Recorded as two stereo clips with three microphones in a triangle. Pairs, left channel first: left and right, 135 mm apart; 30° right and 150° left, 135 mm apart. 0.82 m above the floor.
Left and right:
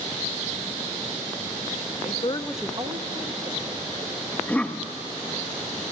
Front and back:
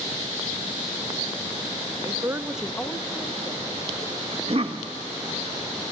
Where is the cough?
165° left, 1.1 m.